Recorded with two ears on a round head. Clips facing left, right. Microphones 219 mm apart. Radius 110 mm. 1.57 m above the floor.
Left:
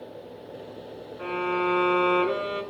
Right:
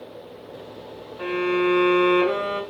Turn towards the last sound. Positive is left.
turn(degrees=-55)  # may be behind; listen again after turning